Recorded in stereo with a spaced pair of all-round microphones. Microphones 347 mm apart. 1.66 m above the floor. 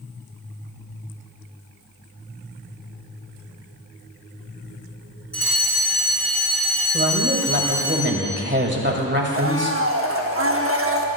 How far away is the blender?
About 0.8 m.